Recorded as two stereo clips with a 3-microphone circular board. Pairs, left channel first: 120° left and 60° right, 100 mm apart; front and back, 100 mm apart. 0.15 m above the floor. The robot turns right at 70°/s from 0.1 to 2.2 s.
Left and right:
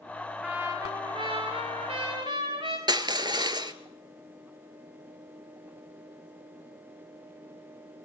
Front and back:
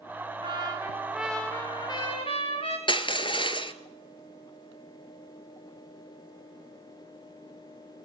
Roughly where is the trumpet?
Behind right.